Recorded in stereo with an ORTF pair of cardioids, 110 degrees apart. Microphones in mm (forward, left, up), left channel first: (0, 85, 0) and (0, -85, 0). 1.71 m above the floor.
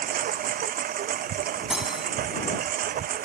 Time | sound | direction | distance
0.0 | a lawn mower | 55° right | ?
1.7 | cutlery clinking | 5° right | ?